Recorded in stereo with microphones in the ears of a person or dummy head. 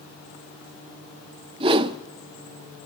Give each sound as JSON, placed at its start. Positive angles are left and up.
{"t": 1.6, "sound": "a whoosh", "side_deg": -25, "distance_m": 0.7}